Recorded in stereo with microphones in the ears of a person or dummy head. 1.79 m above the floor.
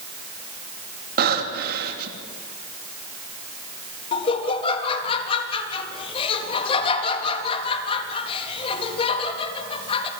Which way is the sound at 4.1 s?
35° left (ahead or behind).